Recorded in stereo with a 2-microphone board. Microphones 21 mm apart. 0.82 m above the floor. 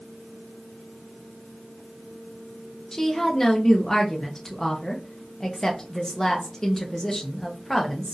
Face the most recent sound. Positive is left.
turn(degrees=25)  # may be behind; listen again after turning